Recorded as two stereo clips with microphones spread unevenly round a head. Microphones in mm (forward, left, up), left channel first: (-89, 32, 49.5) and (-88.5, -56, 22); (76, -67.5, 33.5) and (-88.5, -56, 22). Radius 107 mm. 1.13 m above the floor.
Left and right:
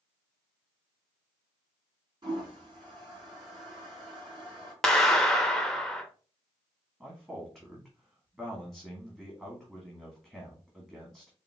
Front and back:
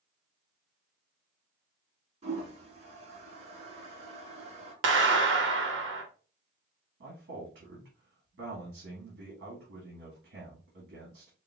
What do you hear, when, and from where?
2.2 s a toilet flushing: 135° right, 3.5 m
4.8 s a clap: 175° left, 1.0 m
7.0 s a man speaking: 170° right, 2 m